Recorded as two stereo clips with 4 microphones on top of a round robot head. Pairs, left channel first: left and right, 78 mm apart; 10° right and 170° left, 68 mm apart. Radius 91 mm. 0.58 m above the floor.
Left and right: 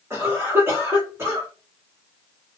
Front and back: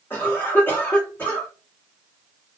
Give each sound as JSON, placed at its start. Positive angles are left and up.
{"t": 0.1, "sound": "a cough", "azimuth_deg": -55, "distance_m": 1.6}